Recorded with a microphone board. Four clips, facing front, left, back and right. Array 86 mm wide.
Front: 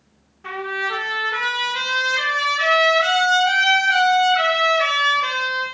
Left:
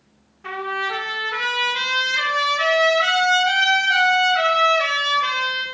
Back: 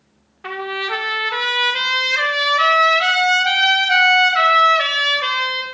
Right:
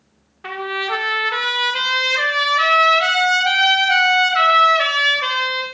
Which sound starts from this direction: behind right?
A trumpet, at 0.4 s.